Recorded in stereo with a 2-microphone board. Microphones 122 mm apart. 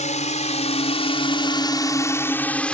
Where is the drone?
75° left (ahead or behind); by 2.7 s 10° left (ahead or behind).